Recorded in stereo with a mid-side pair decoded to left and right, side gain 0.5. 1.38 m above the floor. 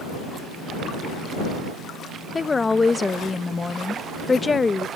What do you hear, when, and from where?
2.4 s a woman speaking: 20° left